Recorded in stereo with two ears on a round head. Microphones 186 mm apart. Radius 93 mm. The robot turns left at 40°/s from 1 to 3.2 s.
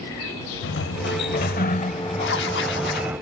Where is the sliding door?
75° left; by 3.2 s 15° right.